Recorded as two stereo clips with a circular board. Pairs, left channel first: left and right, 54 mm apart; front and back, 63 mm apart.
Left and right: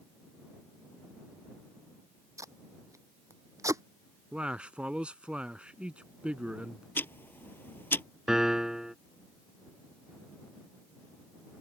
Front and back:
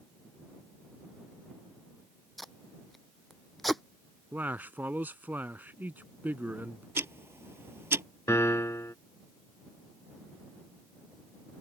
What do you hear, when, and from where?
2.4 s tape being pulled: 90° right
4.3 s a man speaking: 145° right
7.0 s ticking: 135° left
8.3 s a piano: 15° right